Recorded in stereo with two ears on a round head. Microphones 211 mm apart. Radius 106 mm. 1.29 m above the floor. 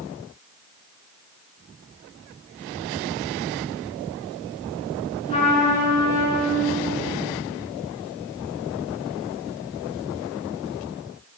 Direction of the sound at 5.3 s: 30° left (ahead or behind).